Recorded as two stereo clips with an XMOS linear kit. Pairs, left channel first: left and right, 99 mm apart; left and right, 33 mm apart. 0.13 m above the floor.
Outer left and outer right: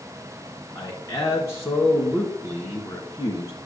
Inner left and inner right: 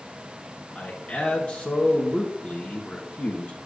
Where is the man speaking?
30° left (ahead or behind), 1.6 m.